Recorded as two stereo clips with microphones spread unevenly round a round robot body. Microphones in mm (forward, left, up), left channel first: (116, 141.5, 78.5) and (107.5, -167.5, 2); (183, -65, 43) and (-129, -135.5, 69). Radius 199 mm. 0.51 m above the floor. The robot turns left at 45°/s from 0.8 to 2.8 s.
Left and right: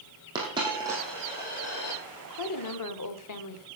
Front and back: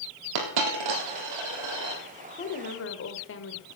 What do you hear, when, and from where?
0.3 s a dropped coin: 170° right, 2.5 m; by 2.0 s 135° left, 2.5 m
2.3 s a woman speaking: 85° left, 1.6 m; by 3.6 s 60° left, 1.6 m